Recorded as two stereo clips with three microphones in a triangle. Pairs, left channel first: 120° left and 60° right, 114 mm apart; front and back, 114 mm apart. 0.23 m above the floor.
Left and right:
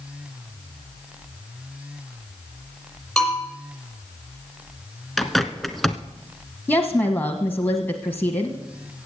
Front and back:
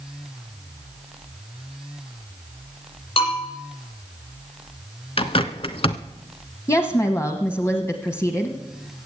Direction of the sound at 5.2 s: 30° left.